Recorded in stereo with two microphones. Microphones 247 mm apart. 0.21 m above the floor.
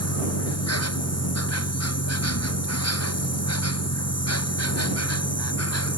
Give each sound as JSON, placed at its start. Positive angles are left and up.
{"t": 0.0, "sound": "an insect", "side_deg": 80}